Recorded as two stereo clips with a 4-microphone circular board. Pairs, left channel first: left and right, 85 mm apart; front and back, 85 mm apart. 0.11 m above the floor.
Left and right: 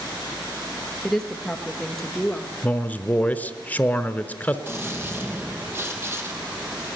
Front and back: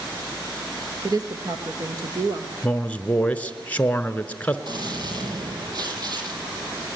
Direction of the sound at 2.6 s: 45° left.